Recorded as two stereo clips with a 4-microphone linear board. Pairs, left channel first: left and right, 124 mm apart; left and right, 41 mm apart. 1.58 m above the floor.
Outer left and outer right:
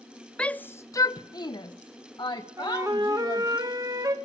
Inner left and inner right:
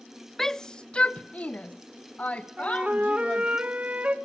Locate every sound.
0.4 s a shout: 5° left (ahead or behind), 0.5 m; by 3.6 s 35° left (ahead or behind), 1.7 m
2.6 s a flute: 25° right (ahead or behind), 1.9 m